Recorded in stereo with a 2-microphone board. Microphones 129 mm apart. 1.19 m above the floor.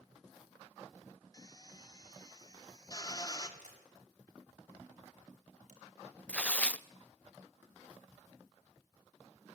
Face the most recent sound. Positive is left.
turn(degrees=10)  # may be behind; listen again after turning